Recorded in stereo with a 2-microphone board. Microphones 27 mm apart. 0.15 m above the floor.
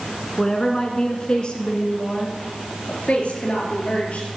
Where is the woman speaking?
20° left (ahead or behind), 1.8 m; by 4.3 s 60° left (ahead or behind), 3.5 m.